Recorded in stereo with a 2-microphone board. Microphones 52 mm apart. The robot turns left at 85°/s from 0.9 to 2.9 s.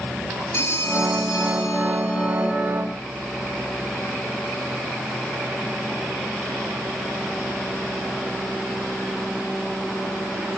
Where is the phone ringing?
125° left, 5.5 m; by 2.5 s 15° right, 5.5 m.